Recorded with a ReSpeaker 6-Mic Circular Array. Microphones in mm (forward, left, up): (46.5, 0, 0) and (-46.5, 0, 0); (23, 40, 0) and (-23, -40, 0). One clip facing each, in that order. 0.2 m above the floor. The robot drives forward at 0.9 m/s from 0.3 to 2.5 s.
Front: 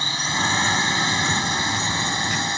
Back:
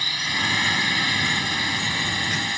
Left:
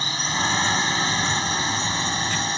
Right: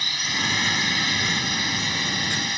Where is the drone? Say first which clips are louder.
Front 3 dB, left 4 dB; 40° left.